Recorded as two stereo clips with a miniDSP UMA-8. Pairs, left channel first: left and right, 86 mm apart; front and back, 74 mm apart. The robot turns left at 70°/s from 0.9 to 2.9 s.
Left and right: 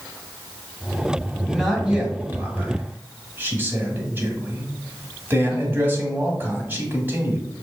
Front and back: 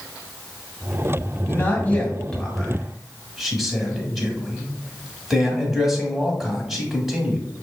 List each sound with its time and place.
1.4 s a man speaking: 5° left, 1.1 m; by 7.5 s 95° right, 1.1 m